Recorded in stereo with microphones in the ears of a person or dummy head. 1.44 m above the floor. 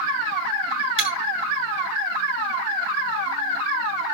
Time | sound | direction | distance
1.0 | breaking glass | 80° right | 6.5 m